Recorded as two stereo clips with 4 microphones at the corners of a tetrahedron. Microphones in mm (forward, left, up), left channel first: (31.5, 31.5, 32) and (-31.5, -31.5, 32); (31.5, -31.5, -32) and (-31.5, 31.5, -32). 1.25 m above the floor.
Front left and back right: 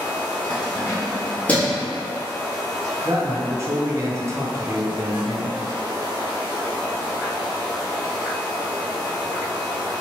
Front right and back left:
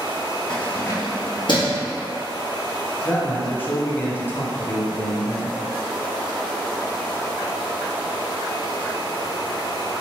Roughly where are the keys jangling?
Ahead left.